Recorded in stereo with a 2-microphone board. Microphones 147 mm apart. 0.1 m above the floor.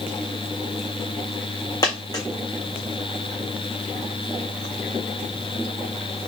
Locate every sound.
1.8 s a dropped coin: 25° left (ahead or behind), 1.8 m